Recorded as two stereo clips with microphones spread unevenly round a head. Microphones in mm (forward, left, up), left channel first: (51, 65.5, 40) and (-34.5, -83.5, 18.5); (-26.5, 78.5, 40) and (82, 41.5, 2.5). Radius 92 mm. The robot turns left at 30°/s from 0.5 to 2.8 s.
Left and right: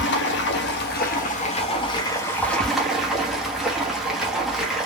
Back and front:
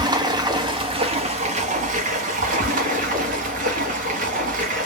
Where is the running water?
40° left, 1.0 m; by 4.9 s 30° right, 1.0 m.